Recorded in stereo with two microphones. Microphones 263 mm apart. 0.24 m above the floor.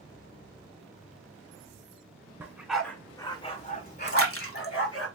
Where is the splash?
55° left (ahead or behind), 0.7 m.